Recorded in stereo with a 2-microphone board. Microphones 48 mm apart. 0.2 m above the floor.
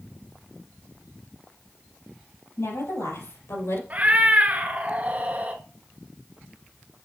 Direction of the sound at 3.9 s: 35° right (ahead or behind).